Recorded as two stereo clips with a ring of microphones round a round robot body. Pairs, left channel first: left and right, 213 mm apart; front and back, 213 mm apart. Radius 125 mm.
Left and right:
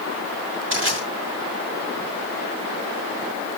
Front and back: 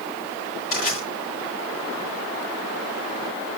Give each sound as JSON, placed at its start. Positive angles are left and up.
{"t": 0.7, "sound": "crushing", "azimuth_deg": -60, "distance_m": 6.5}